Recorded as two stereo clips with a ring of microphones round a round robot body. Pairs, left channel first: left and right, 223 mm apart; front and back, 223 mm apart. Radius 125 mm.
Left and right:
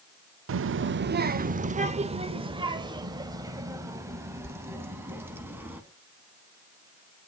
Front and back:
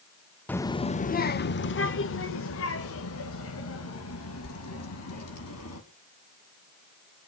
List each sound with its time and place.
0.5 s a child speaking: 85° right, 0.7 m; by 5.8 s 10° right, 3.5 m